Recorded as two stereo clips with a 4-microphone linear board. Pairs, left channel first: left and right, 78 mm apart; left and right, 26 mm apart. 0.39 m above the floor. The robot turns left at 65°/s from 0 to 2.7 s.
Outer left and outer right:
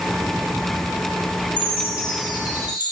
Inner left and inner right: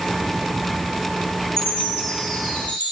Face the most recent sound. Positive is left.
turn(degrees=80)